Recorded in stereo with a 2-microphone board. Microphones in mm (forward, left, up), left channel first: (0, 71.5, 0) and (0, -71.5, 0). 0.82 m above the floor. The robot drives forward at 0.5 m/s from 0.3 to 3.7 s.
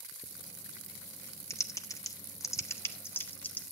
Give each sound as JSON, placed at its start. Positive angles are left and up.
{"t": 1.5, "sound": "typing on a keyboard", "side_deg": 20, "distance_m": 0.6}